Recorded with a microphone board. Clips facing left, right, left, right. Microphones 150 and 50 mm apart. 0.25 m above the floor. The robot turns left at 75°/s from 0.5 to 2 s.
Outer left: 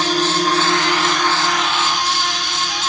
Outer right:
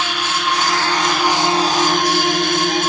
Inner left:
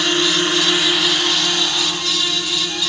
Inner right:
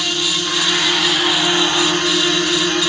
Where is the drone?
45° left; by 2.9 s 65° right.